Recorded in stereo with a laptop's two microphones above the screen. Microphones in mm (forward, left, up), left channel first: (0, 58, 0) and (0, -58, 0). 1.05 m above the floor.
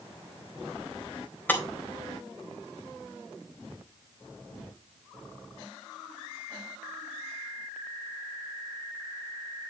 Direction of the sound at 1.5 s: 15° left (ahead or behind).